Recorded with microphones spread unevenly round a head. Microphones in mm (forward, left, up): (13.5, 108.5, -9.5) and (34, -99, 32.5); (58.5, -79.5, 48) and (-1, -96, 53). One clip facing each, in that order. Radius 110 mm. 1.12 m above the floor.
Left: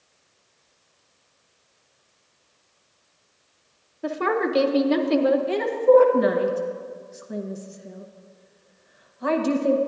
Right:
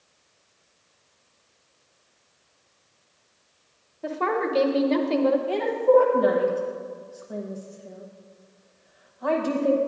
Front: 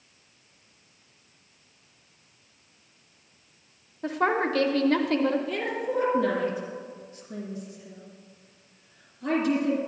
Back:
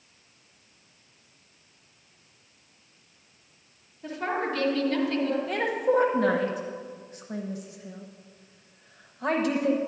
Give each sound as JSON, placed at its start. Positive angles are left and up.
{"t": 4.0, "sound": "a woman speaking", "azimuth_deg": 30, "distance_m": 0.7}
{"t": 5.5, "sound": "a woman speaking", "azimuth_deg": 155, "distance_m": 0.9}